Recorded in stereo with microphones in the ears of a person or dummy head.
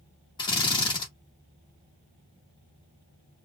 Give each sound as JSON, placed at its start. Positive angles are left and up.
{"t": 0.4, "sound": "a drill", "side_deg": 25, "distance_m": 1.4}